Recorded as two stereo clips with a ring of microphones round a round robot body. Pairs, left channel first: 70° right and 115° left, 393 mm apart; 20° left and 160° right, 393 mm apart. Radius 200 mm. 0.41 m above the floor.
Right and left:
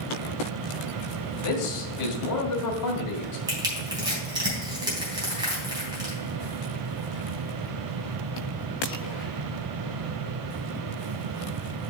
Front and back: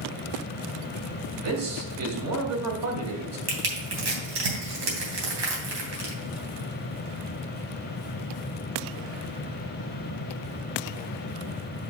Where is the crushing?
170° right, 3 m.